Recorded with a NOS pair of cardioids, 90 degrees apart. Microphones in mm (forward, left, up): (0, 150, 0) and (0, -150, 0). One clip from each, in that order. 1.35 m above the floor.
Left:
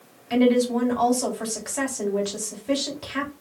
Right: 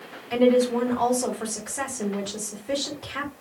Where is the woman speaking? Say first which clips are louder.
Right 1 dB; 50° left, 3.5 m.